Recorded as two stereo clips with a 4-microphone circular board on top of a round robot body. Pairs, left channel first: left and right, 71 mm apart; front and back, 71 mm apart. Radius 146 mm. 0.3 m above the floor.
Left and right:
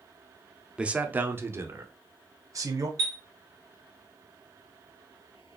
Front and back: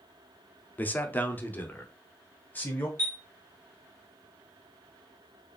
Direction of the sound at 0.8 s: 30° right.